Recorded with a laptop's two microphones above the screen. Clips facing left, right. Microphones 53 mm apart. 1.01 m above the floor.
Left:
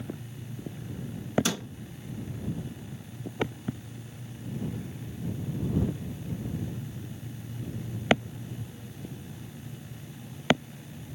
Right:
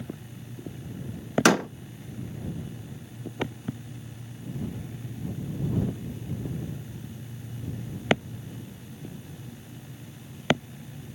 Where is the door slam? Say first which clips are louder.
Right 12 dB; 65° right (ahead or behind).